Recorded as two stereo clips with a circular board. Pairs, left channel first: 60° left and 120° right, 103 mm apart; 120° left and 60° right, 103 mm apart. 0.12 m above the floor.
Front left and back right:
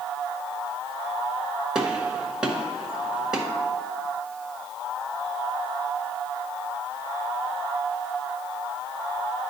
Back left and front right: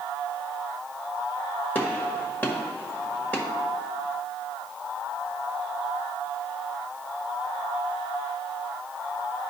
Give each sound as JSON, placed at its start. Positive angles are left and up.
{"t": 1.8, "sound": "a gunshot", "azimuth_deg": 165, "distance_m": 1.3}